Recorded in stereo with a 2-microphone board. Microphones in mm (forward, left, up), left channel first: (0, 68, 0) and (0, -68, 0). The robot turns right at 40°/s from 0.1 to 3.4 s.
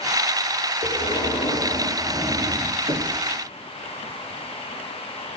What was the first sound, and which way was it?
Breathing, 135° left.